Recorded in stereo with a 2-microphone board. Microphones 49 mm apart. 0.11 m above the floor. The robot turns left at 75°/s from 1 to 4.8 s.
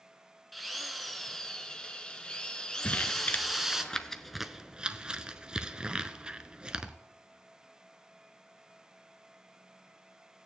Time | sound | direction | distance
0.5 | a drill | centre (ahead or behind) | 0.9 m
2.8 | crumpling | 30° left (ahead or behind) | 0.6 m